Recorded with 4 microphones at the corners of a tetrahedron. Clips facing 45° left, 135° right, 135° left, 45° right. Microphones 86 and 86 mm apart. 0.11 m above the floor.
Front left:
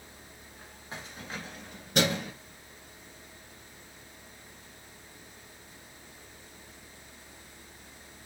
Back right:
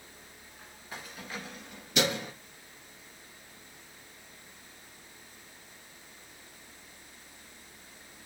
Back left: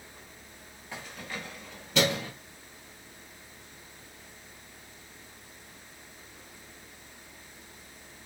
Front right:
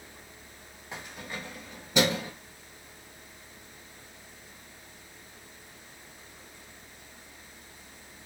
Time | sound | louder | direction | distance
0.9 | keys jangling | front left 1 dB, even | 10° left | 1.2 m